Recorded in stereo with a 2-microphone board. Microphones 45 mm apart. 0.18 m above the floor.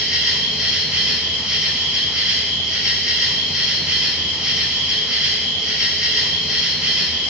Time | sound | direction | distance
0.0 | an insect | 15° right (ahead or behind) | 1.5 m